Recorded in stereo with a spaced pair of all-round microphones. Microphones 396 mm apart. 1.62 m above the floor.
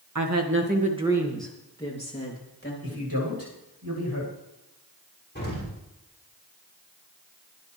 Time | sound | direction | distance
0.1 | a woman speaking | 50° right (ahead or behind) | 2.0 m
2.8 | a man speaking | 65° right (ahead or behind) | 8 m
5.3 | an explosion | 25° left (ahead or behind) | 6.5 m